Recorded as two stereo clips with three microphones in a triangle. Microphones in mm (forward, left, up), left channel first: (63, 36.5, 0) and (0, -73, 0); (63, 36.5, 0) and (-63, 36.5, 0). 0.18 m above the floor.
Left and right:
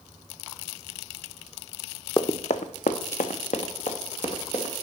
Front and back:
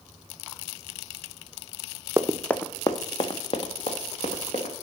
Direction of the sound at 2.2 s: 105° left.